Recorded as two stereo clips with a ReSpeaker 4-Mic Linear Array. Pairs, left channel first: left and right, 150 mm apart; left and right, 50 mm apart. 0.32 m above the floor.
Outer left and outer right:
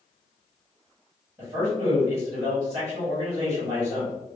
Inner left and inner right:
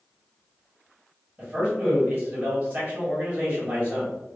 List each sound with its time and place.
1.4 s a man speaking: 25° right (ahead or behind), 1.8 m